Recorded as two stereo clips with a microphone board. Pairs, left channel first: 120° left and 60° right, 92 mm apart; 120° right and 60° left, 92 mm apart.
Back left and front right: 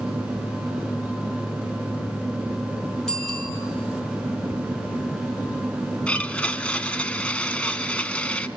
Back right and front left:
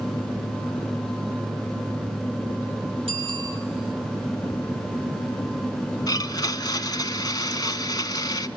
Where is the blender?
160° right, 0.9 m.